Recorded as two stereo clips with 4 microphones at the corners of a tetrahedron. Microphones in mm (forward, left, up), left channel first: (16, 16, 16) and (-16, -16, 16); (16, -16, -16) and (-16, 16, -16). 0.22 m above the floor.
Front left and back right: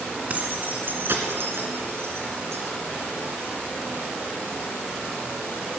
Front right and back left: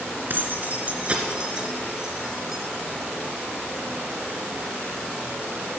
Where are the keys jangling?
170° left, 2.0 m; by 2.6 s 140° right, 3.5 m.